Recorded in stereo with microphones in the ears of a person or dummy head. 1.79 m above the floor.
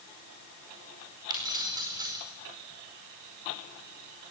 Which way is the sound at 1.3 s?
25° right (ahead or behind).